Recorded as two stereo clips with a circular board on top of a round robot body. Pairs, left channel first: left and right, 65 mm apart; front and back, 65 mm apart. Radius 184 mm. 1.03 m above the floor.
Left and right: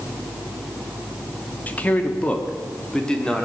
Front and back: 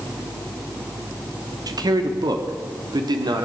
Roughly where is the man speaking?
Behind left.